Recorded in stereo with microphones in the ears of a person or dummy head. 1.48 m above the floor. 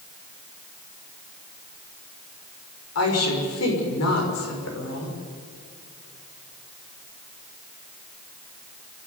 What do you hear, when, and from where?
3.0 s a woman speaking: 85° left, 6 m